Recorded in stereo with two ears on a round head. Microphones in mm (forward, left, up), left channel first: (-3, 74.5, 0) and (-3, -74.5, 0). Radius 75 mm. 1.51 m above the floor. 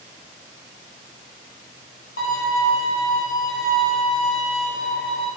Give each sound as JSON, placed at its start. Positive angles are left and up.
{"t": 2.2, "sound": "a violin", "side_deg": 60, "distance_m": 0.9}